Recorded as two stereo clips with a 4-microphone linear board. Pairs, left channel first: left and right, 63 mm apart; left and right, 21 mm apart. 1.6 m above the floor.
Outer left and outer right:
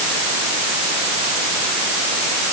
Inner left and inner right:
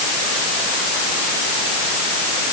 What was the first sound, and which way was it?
Only background noise.